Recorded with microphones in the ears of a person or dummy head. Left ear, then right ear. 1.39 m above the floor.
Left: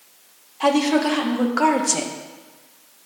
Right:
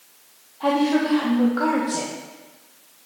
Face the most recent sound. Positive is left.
turn(degrees=60)  # may be behind; listen again after turning